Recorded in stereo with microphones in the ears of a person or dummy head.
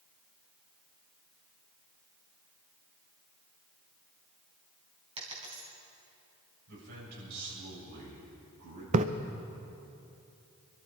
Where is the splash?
40° right (ahead or behind), 0.6 m.